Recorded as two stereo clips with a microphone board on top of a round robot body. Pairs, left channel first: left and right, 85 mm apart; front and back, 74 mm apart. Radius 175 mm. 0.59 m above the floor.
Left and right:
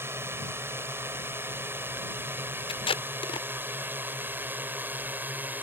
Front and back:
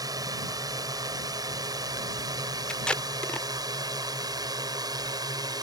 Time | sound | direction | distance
0.0 | a drone | 150° right | ?
2.7 | tape being pulled | 80° left | ?